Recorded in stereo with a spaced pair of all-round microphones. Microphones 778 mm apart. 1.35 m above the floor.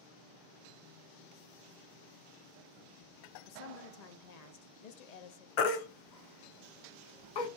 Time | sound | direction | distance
3.5 | a woman speaking | 60° left (ahead or behind) | 0.6 m
5.6 | a baby crying | 70° left (ahead or behind) | 0.7 m